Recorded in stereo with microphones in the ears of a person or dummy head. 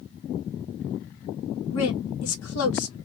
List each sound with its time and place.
1.7 s a woman speaking: 85° left, 1.4 m